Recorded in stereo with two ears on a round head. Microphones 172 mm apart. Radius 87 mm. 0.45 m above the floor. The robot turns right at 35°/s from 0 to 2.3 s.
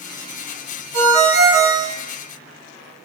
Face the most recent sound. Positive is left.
turn(degrees=-70)